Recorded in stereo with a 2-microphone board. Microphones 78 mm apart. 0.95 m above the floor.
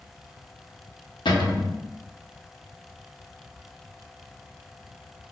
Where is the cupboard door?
80° left, 0.6 m.